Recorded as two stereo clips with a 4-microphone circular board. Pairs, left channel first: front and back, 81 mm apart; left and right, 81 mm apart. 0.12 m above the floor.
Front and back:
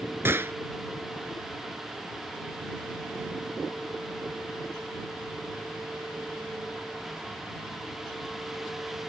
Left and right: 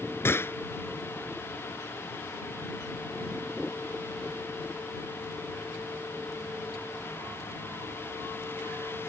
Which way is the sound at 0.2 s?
135° left.